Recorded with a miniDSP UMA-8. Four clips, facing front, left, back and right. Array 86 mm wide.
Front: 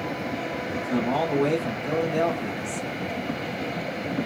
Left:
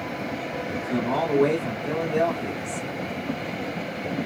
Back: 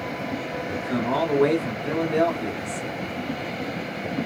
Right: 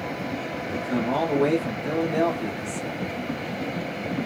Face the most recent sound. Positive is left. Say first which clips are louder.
# right 1 dB, even
turn(degrees=-170)